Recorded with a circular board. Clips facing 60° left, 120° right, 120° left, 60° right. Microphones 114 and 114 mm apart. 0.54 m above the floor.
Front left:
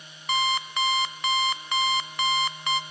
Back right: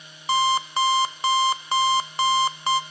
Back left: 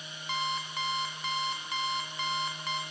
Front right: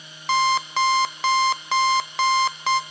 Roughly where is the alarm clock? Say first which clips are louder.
Back right 5 dB, front right 14 dB; ahead right.